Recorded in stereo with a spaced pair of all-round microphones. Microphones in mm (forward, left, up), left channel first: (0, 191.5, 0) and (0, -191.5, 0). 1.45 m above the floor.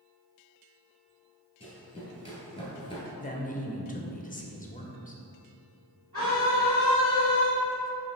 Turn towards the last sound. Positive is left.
turn(degrees=-80)